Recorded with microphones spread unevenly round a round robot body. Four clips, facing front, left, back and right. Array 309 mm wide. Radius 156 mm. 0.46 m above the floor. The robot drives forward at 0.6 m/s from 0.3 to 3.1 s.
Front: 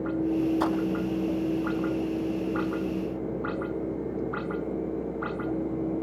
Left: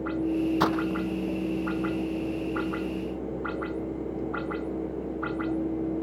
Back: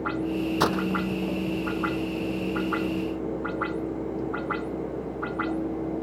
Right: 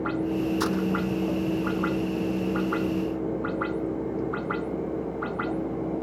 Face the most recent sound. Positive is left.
turn(degrees=150)